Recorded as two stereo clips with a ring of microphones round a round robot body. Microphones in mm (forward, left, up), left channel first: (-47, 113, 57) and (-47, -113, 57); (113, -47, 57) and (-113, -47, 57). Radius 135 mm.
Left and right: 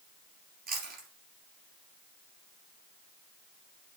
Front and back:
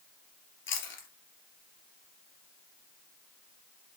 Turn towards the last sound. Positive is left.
turn(degrees=-35)